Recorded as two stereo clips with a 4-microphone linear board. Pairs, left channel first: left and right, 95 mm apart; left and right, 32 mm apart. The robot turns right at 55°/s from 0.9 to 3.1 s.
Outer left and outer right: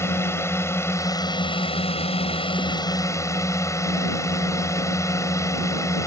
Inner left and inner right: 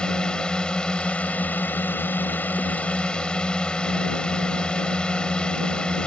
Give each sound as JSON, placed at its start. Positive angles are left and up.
{"t": 0.0, "sound": "a drone", "azimuth_deg": 25}